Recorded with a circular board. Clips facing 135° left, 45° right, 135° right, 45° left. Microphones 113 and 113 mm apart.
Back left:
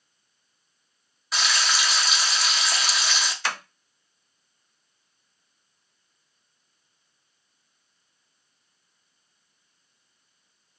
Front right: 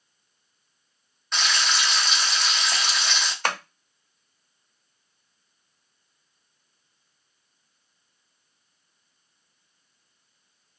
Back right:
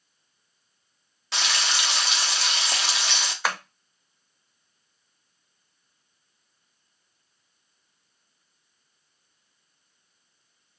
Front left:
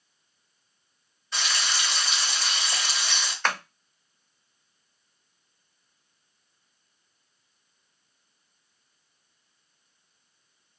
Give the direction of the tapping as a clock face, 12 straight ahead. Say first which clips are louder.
Front right 5 dB, even; 2 o'clock.